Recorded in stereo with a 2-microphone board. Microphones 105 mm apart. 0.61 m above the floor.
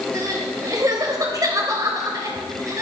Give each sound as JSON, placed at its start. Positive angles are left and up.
{"t": 0.1, "sound": "crying", "side_deg": -35, "distance_m": 3.0}